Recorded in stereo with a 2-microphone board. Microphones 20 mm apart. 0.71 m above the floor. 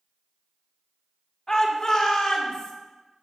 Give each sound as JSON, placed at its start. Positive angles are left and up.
{"t": 1.5, "sound": "a shout", "side_deg": 35, "distance_m": 1.6}